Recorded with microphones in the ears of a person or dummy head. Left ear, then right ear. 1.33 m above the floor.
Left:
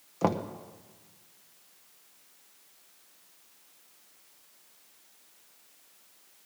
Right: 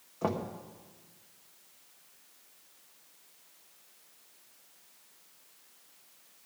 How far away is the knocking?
About 0.8 m.